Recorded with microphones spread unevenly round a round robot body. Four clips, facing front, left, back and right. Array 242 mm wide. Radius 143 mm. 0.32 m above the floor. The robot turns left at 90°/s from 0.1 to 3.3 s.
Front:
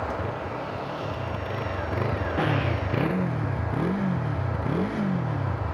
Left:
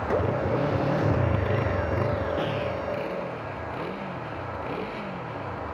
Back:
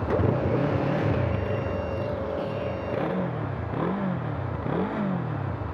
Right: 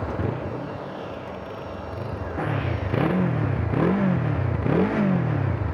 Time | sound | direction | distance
0.0 | a motorcycle | 145° right | ?